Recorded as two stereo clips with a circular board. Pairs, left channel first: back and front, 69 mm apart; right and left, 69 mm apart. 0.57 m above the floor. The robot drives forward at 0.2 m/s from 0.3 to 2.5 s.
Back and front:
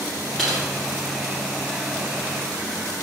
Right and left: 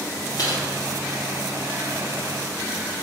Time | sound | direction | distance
0.4 | typing on a keyboard | 95° right | 1.5 m